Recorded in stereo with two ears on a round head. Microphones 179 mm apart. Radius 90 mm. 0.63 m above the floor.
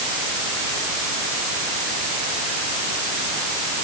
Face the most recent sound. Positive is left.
No sound to turn to.